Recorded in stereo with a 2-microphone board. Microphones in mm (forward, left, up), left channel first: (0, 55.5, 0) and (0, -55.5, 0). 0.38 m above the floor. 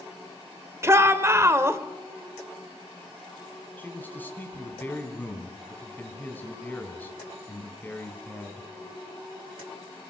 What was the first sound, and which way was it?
A shout, 25° right (ahead or behind).